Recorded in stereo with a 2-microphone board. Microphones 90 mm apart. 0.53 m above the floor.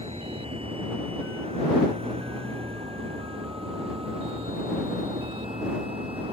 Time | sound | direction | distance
0.0 | a vehicle | 80° right | ?